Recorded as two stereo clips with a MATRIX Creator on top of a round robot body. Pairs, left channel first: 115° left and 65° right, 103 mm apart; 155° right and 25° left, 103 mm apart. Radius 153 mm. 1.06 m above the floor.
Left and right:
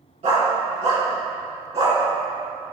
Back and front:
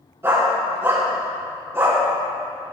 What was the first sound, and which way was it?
A dog barking, 45° right.